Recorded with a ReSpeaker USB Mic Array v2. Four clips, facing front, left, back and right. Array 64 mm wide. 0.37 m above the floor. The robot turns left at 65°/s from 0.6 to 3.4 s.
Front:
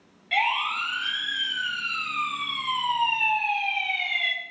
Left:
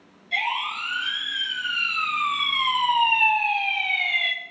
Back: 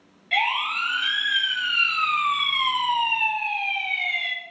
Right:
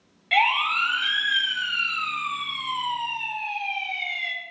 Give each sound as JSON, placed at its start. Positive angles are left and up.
{"t": 0.3, "sound": "a siren", "azimuth_deg": -90, "distance_m": 5.5}